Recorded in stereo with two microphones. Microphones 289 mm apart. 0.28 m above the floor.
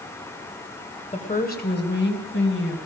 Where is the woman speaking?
25° left (ahead or behind), 1.6 m; by 2.8 s 40° left (ahead or behind), 2.5 m.